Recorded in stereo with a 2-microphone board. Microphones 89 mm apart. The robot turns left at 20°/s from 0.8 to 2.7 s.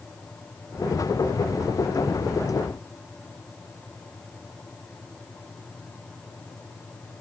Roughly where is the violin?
I don't hear a violin.